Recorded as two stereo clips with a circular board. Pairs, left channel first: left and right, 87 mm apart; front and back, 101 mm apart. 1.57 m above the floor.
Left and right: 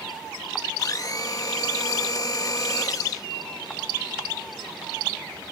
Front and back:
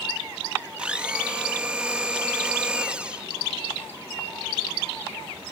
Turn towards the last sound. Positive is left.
turn(degrees=105)